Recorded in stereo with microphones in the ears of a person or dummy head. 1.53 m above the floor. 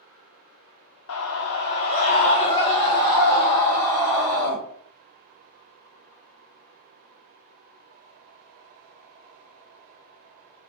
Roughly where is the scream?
Left.